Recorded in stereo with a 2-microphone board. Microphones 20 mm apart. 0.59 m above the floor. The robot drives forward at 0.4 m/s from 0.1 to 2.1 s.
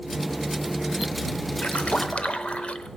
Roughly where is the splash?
Left.